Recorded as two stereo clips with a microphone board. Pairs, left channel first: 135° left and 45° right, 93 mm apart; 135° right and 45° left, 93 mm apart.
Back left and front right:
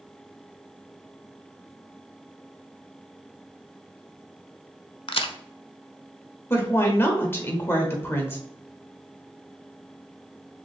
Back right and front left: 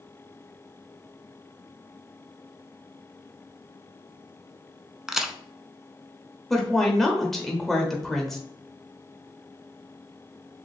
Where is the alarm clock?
No alarm clock in this recording.